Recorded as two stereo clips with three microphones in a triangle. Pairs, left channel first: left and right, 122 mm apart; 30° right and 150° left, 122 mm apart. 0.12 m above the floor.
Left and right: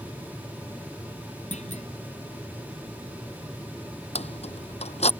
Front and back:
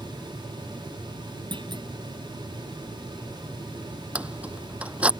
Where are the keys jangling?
70° left.